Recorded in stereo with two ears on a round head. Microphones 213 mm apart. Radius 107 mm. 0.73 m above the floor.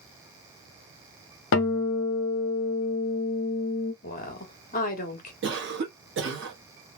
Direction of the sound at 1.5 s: 55° left (ahead or behind).